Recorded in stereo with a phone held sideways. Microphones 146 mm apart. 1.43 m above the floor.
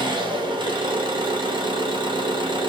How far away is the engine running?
About 2.5 m.